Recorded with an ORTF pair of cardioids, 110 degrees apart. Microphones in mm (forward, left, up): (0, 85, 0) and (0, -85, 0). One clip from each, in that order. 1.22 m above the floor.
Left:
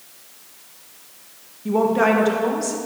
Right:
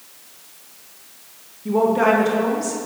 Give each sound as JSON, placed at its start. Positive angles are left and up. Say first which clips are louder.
{"t": 1.6, "sound": "a woman speaking", "louder": "right 1 dB", "azimuth_deg": 15, "distance_m": 1.5}